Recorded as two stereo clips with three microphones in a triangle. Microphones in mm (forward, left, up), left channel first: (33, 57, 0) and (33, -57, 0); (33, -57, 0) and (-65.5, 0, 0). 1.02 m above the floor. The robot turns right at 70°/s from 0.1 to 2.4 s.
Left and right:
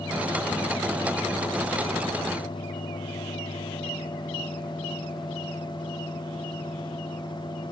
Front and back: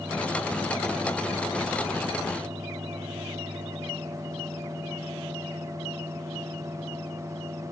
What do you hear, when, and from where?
Only background noise.